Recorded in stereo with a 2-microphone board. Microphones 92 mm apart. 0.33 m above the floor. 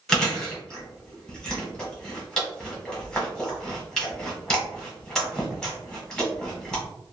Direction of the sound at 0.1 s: 5° left (ahead or behind).